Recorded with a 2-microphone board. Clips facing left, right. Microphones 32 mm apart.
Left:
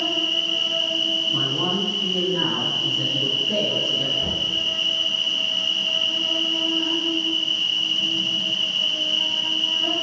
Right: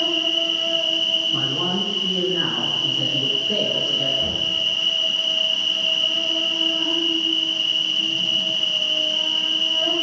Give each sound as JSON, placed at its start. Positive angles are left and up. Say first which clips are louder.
{"t": 0.0, "sound": "an insect", "louder": "right 2 dB", "side_deg": -70, "distance_m": 1.6}
{"t": 1.3, "sound": "a man speaking", "louder": "even", "side_deg": -20, "distance_m": 1.3}
{"t": 4.2, "sound": "knocking", "louder": "right 1 dB", "side_deg": -30, "distance_m": 1.4}